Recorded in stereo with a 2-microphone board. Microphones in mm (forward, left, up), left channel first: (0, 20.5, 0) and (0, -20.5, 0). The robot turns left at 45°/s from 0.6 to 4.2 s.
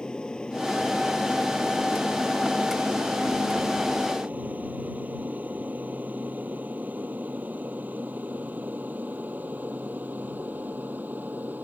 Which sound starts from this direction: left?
An aircraft, at 0.0 s.